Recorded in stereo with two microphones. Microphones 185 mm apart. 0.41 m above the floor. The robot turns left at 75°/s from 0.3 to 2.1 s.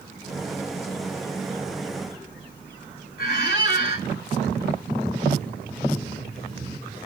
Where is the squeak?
60° left (ahead or behind), 1.7 m.